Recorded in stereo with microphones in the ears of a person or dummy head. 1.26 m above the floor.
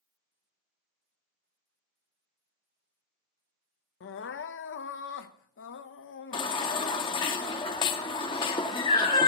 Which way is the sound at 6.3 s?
25° left (ahead or behind).